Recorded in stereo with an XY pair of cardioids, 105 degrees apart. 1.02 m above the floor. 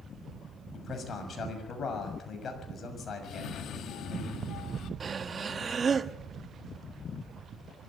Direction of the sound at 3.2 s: 70° left.